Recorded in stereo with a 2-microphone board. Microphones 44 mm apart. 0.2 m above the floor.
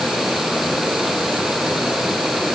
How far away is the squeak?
No squeak in this recording.